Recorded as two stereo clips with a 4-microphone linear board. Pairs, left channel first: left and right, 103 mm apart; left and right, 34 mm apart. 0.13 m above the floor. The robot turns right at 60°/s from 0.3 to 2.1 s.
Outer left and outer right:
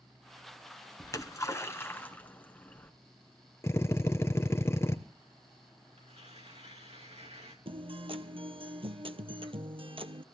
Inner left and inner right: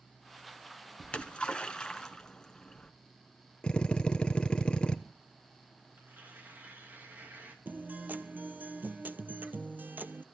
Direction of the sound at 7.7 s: 60° right (ahead or behind).